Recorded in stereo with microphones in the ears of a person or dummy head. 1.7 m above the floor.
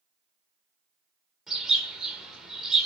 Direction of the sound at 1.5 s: Centre (ahead or behind).